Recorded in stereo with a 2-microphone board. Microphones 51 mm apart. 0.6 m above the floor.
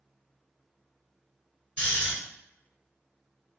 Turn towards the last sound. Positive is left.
turn(degrees=25)  # may be behind; listen again after turning